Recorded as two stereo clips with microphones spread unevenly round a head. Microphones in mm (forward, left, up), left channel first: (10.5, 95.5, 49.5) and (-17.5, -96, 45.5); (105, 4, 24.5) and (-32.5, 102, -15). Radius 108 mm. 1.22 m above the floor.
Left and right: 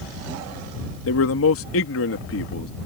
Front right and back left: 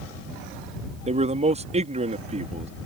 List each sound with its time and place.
1.1 s a man speaking: 95° left